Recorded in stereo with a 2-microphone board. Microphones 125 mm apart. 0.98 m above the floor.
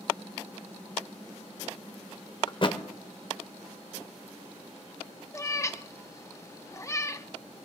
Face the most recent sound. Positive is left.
turn(degrees=25)  # may be behind; listen again after turning